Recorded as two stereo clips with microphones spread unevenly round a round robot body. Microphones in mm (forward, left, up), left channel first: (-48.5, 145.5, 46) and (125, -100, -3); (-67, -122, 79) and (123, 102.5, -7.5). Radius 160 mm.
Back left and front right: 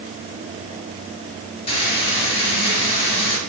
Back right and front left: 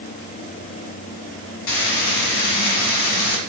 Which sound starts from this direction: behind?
Frying, at 1.7 s.